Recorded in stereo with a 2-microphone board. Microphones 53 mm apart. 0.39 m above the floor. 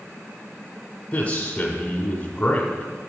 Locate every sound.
1.1 s a man speaking: 25° left (ahead or behind), 1.0 m